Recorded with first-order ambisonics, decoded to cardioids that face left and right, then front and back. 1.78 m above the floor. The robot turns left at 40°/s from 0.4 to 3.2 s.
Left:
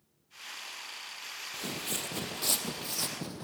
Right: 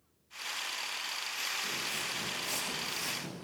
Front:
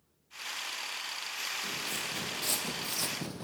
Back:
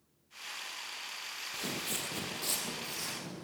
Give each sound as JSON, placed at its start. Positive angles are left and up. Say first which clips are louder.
{"t": 1.5, "sound": "footsteps", "louder": "right 2 dB, front 2 dB", "azimuth_deg": 130, "distance_m": 2.5}